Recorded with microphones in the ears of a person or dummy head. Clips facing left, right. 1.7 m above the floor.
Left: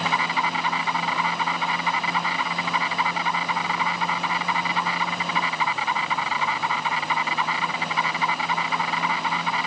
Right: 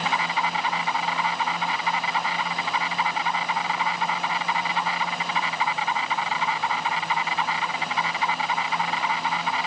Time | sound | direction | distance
0.0 | an insect | 70° left (ahead or behind) | ?